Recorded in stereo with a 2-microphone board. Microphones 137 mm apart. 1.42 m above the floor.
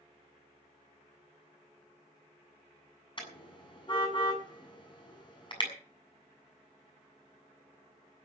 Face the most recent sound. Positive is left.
turn(degrees=35)  # may be behind; listen again after turning